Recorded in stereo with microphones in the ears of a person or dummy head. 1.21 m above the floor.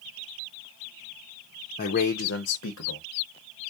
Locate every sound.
1.8 s a man speaking: 40° left (ahead or behind), 0.6 m; by 3.1 s 80° left, 1.0 m